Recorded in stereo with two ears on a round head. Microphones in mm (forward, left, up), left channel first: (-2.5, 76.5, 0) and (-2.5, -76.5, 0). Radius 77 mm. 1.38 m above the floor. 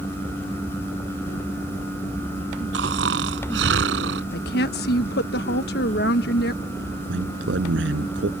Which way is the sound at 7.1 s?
80° right.